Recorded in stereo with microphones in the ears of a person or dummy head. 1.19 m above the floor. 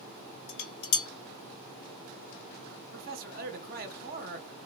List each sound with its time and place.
0.5 s dishes clattering: 65° left (ahead or behind), 2.5 m
2.9 s a man speaking: 50° right (ahead or behind), 0.8 m